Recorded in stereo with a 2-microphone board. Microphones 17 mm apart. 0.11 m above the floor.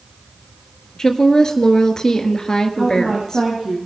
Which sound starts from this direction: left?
A woman speaking, at 1.0 s.